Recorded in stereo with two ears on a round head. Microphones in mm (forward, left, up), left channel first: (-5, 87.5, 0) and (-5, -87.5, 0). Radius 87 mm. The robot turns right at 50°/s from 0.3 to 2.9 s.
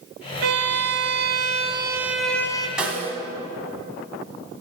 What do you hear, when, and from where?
0.4 s a violin: 90° right, 0.7 m; by 2.7 s 20° left, 0.7 m
2.8 s a snare drum: 5° right (ahead or behind), 1.2 m; by 3.1 s 10° right (ahead or behind), 1.2 m